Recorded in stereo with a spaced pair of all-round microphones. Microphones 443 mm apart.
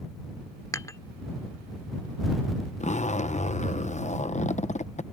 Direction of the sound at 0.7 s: 5° left (ahead or behind).